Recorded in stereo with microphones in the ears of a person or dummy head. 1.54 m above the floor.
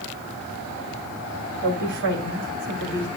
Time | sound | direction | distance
1.6 | a woman speaking | 65° right (ahead or behind) | 3 m